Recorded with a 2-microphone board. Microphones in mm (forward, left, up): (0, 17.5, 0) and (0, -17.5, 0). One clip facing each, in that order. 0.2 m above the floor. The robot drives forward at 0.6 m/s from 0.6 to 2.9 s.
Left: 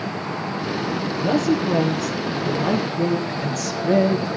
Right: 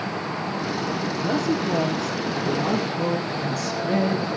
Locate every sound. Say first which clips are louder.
1.2 s a woman speaking: left 5 dB; 70° left (ahead or behind), 3.5 m